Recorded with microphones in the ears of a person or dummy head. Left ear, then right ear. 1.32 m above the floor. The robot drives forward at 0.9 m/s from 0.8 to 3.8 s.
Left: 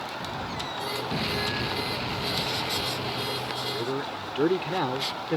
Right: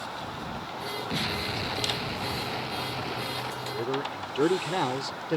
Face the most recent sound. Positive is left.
turn(degrees=-5)  # may be behind; listen again after turning